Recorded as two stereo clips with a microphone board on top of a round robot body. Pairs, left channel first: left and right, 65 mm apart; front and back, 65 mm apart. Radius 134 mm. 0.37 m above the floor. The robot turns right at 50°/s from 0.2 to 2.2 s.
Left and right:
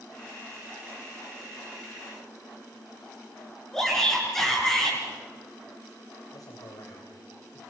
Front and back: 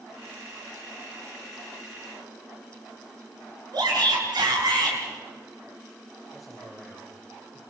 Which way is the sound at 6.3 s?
90° left.